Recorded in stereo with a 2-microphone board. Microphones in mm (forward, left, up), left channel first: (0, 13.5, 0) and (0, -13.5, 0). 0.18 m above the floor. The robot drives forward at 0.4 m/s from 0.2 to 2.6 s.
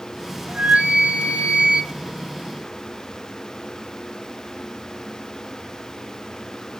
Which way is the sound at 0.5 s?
70° right (ahead or behind).